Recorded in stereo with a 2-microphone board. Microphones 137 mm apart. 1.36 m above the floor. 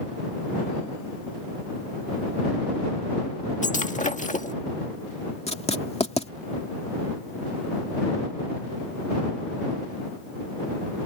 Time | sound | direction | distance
3.6 | breaking glass | 65° left (ahead or behind) | ?
5.5 | writing | 50° left (ahead or behind) | ?